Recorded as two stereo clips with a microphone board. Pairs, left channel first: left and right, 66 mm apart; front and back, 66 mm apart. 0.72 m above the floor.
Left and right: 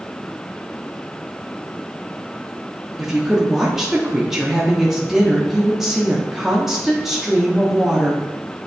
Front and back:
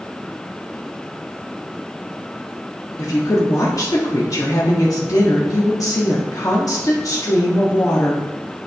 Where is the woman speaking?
10° right, 1.2 m.